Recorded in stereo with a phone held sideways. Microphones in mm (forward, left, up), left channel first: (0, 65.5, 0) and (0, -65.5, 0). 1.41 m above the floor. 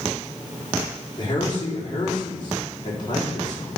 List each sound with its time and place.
1.2 s a man speaking: 40° left (ahead or behind), 3.5 m